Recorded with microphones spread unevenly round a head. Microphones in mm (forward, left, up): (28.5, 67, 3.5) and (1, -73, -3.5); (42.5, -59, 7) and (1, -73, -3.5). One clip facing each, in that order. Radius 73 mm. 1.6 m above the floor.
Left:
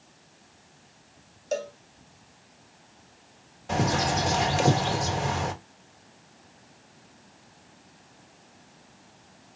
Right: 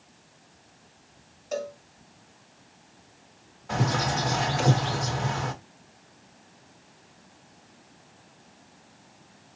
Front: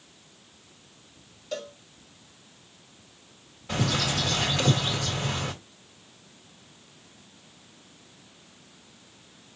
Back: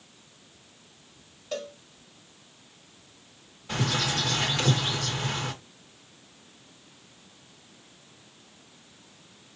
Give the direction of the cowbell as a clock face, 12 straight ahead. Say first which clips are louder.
Left 1 dB, back 1 dB; 8 o'clock.